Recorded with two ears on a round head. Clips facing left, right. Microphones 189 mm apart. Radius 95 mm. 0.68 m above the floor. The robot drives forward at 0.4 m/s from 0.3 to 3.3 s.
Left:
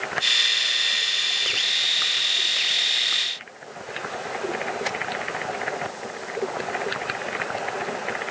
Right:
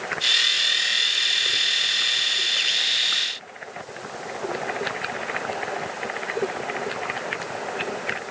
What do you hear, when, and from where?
Only background noise.